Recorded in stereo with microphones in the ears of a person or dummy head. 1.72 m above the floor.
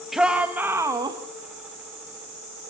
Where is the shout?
Centre (ahead or behind), 1.9 m; by 1.2 s 20° right (ahead or behind), 1.9 m.